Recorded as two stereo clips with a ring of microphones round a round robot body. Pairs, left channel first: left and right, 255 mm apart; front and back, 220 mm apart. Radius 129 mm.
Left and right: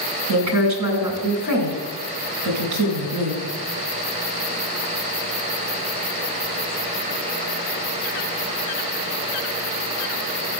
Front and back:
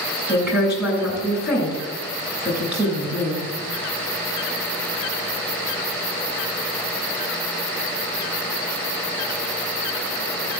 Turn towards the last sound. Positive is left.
turn(degrees=-95)